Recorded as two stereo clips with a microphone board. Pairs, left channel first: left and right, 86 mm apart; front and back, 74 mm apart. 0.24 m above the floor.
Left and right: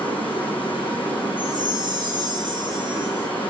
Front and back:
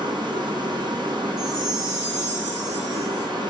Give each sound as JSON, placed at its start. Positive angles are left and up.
{"t": 0.0, "sound": "running water", "azimuth_deg": 165, "distance_m": 4.5}
{"t": 1.4, "sound": "a chime", "azimuth_deg": -105, "distance_m": 3.0}